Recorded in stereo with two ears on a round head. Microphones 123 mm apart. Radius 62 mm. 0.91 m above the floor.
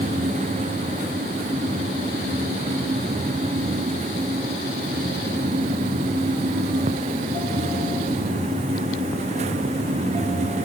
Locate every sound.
Only background noise.